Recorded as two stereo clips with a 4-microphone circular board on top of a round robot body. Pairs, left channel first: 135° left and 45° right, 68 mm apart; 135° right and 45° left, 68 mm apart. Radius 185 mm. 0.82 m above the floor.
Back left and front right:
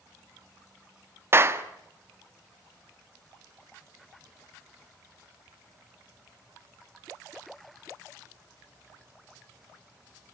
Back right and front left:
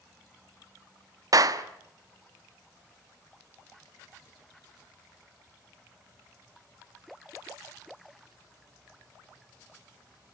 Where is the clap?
10° left, 1.5 m.